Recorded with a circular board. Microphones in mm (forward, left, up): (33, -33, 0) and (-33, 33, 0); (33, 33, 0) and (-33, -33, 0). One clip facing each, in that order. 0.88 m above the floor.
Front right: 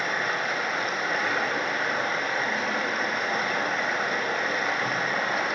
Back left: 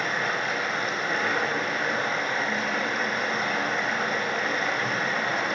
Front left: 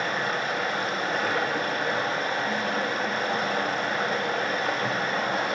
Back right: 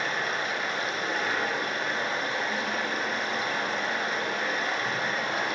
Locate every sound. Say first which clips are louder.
0.0 s running water: even, front left 2 dB; 40° left, 0.9 m